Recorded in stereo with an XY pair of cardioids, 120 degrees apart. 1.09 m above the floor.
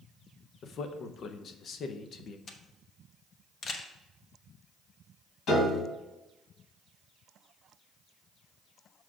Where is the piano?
70° left, 2.5 m.